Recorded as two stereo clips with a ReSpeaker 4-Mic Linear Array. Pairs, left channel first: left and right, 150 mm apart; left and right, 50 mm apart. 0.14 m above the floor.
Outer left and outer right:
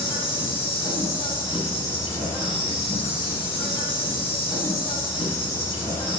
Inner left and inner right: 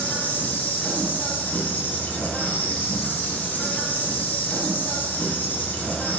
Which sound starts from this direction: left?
An insect, at 0.0 s.